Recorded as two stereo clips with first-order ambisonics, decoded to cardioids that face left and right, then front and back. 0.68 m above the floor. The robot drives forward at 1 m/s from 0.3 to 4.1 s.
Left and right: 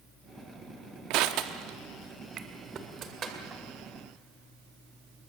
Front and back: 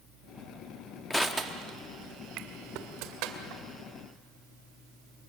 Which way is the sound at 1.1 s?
85° right.